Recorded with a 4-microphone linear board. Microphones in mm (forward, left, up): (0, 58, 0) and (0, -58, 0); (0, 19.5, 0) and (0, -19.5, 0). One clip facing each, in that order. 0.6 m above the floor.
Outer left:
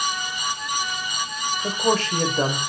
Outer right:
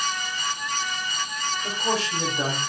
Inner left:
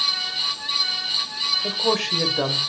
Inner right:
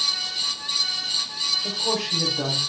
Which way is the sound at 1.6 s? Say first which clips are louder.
Outer left 6 dB, inner left 3 dB; 55° left (ahead or behind).